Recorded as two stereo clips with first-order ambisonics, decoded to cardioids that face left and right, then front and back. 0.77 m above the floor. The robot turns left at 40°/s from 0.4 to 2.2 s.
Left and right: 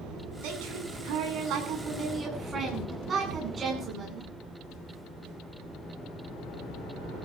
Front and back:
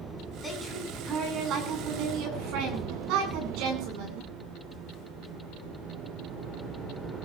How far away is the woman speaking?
About 8.5 m.